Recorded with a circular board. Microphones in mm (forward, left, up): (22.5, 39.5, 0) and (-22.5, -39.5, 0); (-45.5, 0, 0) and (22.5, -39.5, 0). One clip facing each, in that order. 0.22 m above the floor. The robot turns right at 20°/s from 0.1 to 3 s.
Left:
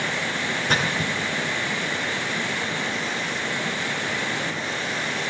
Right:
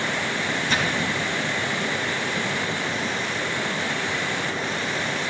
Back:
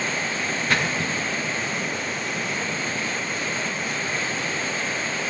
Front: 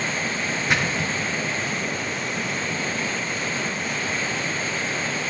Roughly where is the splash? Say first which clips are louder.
Left 1 dB, even; ahead left.